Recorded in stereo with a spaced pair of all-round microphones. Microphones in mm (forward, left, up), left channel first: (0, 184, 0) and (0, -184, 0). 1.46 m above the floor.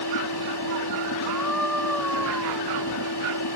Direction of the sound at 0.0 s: 80° left.